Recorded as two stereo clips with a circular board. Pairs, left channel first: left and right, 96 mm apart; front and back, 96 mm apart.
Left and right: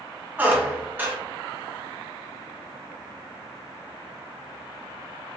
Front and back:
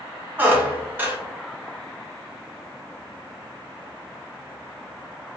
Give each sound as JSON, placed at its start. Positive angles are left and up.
{"t": 0.4, "sound": "a squeak", "azimuth_deg": -135, "distance_m": 0.9}